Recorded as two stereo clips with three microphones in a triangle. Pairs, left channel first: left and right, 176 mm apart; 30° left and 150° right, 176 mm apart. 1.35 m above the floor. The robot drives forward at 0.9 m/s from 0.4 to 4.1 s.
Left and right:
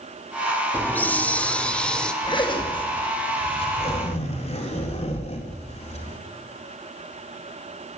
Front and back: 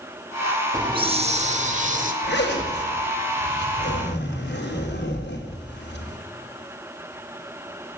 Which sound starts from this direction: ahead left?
A zipper, at 2.2 s.